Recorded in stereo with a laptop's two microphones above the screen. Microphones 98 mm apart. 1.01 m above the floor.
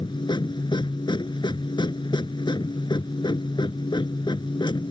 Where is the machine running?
50° left (ahead or behind).